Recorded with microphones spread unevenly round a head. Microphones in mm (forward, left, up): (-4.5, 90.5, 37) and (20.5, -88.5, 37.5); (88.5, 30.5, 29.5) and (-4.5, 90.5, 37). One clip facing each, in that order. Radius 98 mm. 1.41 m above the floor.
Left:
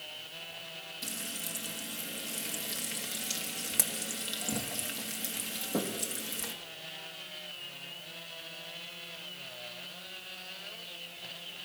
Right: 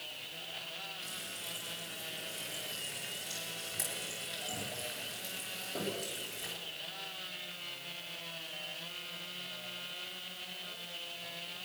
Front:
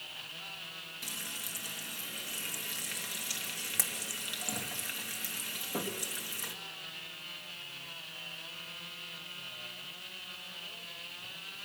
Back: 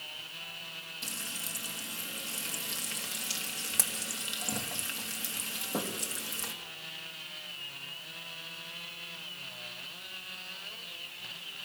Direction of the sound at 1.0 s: 85° left.